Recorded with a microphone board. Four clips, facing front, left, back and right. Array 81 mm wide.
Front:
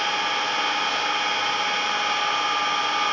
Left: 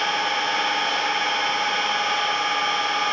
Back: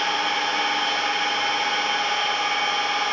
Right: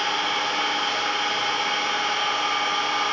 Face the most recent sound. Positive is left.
turn(degrees=100)